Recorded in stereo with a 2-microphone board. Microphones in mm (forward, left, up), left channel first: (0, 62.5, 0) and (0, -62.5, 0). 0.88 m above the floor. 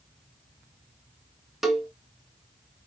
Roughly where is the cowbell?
Centre.